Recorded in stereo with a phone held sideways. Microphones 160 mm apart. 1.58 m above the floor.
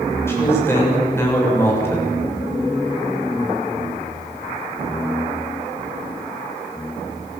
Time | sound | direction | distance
0.3 | a man speaking | 15° left (ahead or behind) | 6.5 m